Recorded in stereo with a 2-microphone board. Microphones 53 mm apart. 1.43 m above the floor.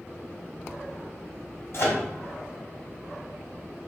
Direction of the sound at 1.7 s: 50° left (ahead or behind).